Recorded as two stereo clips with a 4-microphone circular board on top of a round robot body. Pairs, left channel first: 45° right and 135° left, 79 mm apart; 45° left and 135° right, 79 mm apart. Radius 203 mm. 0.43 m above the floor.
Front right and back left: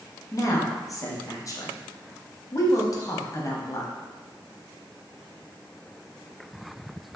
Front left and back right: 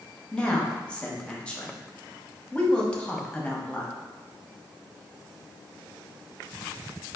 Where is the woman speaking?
25° right, 1.0 m.